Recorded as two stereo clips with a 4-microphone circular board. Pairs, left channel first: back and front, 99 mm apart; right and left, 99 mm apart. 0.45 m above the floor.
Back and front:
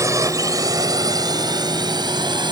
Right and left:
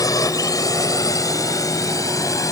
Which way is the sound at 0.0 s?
50° right.